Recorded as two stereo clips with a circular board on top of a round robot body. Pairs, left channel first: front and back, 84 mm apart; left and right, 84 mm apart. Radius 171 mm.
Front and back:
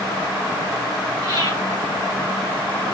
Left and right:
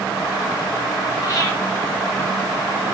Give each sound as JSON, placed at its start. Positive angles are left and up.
{"t": 1.2, "sound": "breathing", "azimuth_deg": 135, "distance_m": 5.5}